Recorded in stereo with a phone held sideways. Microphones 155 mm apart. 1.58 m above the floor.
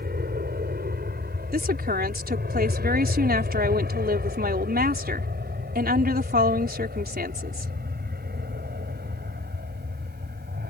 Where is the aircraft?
70° right (ahead or behind); by 10.7 s 75° right (ahead or behind).